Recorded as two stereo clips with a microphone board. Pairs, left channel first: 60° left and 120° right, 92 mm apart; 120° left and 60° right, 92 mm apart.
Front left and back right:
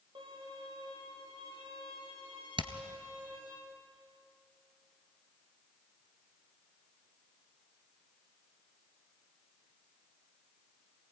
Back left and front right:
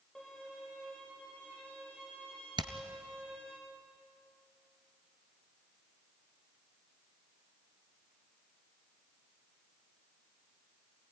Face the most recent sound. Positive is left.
turn(degrees=-95)